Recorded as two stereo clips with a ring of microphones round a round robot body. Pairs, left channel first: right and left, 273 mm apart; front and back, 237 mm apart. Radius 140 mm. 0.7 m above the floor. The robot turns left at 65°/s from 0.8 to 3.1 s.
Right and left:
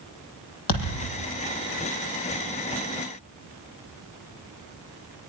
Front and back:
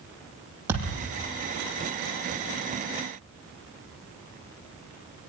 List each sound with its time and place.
0.7 s a thud: 100° right, 9 m; by 1.1 s 115° right, 9 m